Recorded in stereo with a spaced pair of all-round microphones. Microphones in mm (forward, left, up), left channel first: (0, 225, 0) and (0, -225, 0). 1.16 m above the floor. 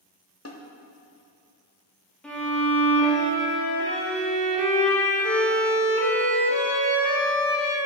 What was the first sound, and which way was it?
A snare drum, 35° left (ahead or behind).